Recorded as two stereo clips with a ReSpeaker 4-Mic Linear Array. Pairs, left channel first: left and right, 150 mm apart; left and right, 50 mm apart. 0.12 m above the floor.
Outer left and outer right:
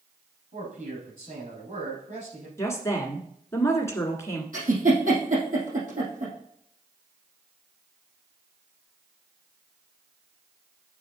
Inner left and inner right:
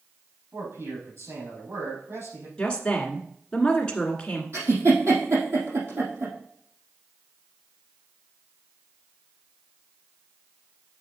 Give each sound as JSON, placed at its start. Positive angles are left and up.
{"t": 0.5, "sound": "a man speaking", "side_deg": -65, "distance_m": 4.5}
{"t": 2.6, "sound": "a woman speaking", "side_deg": 20, "distance_m": 1.3}
{"t": 4.5, "sound": "a giggle", "side_deg": -65, "distance_m": 3.5}